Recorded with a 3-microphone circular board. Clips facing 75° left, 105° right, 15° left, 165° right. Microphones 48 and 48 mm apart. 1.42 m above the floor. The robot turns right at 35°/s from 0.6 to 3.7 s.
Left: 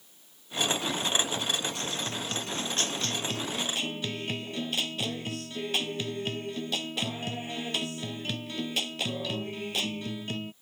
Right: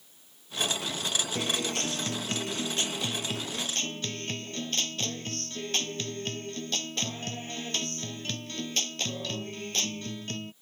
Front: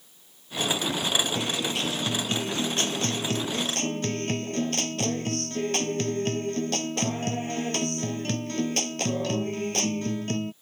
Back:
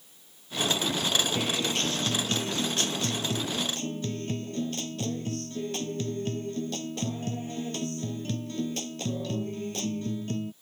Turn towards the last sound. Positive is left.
turn(degrees=-5)